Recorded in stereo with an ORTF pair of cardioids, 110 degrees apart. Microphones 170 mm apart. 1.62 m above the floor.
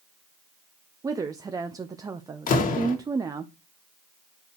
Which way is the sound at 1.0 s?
20° right.